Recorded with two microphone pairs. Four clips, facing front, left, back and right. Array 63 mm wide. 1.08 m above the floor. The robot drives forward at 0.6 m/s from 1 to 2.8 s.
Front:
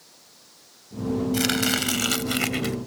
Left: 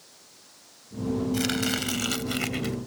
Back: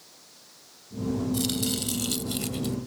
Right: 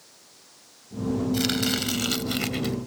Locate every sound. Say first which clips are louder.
1.3 s chopping: right 1 dB, front 5 dB; straight ahead